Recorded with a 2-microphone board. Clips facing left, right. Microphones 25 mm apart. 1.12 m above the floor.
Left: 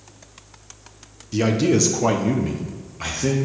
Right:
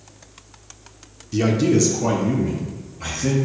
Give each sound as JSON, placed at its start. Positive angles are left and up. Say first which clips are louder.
{"t": 1.3, "sound": "a man speaking", "louder": "right 1 dB", "side_deg": 5, "distance_m": 0.6}